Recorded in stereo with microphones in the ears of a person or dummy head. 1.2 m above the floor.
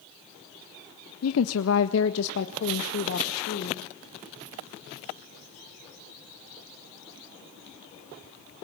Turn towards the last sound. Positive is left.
turn(degrees=55)  # may be behind; listen again after turning